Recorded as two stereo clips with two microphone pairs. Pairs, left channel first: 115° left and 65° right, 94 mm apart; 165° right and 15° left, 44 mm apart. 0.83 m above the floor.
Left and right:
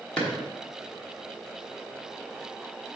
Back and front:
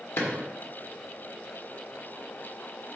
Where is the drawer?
170° right, 0.9 m.